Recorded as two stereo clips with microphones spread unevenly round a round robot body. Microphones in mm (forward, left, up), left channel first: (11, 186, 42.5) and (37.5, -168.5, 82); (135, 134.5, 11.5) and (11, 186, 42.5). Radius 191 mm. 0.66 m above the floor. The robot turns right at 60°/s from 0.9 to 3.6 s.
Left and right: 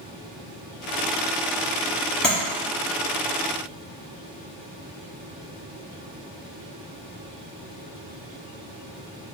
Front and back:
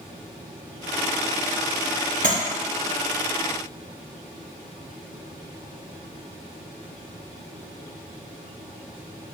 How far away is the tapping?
About 1.3 m.